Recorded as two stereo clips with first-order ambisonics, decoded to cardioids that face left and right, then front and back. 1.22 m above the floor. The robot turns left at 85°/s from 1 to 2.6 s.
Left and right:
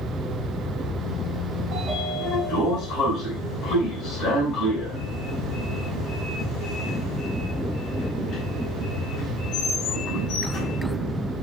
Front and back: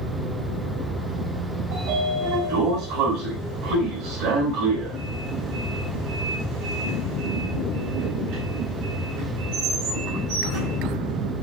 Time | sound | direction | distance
1.7 | a sliding door | 140° right | 6 m